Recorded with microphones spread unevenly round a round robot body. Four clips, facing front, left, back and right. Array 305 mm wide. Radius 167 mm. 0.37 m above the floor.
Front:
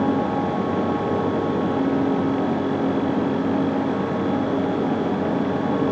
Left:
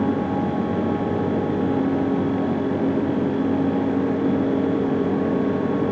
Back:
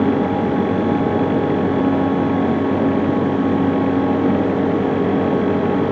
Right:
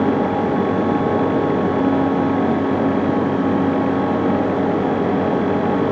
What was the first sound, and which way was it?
Only background noise.